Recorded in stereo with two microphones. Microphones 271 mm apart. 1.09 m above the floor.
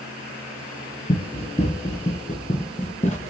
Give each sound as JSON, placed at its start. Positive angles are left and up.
{"t": 1.1, "sound": "running footsteps", "side_deg": 20, "distance_m": 1.1}